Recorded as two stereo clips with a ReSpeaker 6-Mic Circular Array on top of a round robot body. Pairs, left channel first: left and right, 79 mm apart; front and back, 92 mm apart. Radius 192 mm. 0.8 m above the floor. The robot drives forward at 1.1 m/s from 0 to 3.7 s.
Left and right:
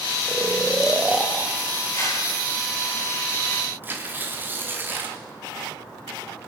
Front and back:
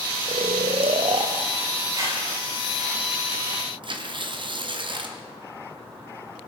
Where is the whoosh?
140° left, 9 m.